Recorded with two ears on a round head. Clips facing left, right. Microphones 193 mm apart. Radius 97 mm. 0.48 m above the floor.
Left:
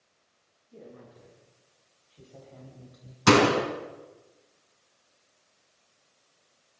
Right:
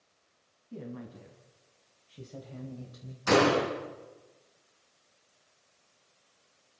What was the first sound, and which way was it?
A woman speaking, 65° right (ahead or behind).